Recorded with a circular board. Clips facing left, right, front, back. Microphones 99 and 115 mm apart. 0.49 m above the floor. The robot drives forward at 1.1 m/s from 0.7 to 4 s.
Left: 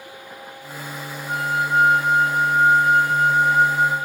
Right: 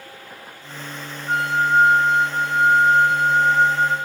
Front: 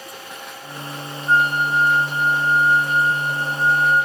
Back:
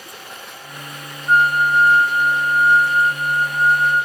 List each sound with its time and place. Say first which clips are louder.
1.3 s a flute: right 3 dB, back 3 dB; 105° right, 0.5 m; by 4.0 s 170° right, 3 m